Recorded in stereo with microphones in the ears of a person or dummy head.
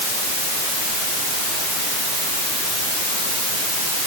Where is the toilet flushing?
I don't hear a toilet flushing.